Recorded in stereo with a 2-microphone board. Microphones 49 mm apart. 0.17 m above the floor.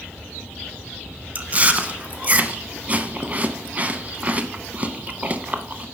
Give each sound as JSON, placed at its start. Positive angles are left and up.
{"t": 1.4, "sound": "chewing", "side_deg": -30, "distance_m": 0.6}